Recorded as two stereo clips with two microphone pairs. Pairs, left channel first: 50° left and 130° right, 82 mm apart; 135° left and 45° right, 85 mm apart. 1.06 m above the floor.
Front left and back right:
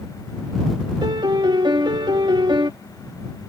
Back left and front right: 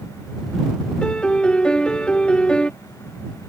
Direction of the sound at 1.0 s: 145° right.